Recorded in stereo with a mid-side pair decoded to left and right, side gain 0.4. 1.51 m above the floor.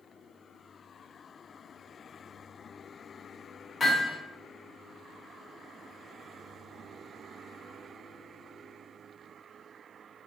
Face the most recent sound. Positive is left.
turn(degrees=45)